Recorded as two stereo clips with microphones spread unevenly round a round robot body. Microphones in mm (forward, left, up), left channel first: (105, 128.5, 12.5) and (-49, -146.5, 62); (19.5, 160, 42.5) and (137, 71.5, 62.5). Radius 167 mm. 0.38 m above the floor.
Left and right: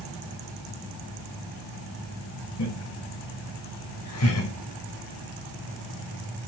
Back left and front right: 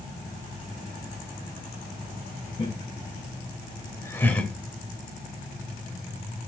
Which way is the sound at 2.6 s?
95° left.